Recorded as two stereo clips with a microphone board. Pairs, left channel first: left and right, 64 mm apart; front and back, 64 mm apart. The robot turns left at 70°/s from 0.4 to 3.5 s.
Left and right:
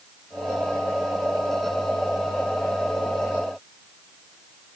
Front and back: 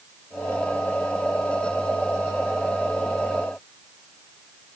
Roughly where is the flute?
I don't hear a flute.